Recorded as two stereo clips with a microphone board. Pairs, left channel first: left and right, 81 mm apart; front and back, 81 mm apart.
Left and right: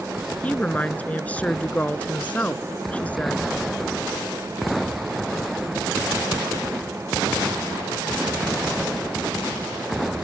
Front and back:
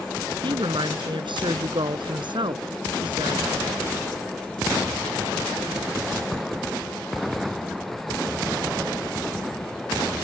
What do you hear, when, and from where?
0.4 s a woman speaking: 165° left